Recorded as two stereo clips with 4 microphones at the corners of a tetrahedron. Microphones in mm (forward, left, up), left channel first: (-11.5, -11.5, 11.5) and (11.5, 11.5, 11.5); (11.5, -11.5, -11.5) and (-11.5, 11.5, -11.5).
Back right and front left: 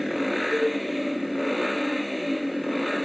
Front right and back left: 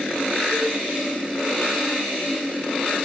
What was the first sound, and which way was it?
A cowbell, 55° right.